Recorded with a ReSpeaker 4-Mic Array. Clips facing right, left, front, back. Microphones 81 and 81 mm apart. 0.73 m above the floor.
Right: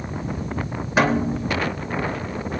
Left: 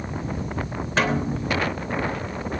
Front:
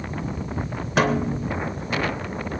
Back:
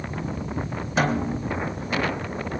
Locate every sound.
1.0 s a snare drum: 15° right, 3 m